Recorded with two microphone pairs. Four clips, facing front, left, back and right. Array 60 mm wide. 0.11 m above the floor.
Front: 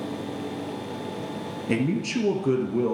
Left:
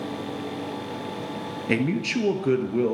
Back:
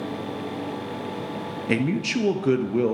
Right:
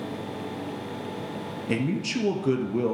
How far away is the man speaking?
About 2.0 m.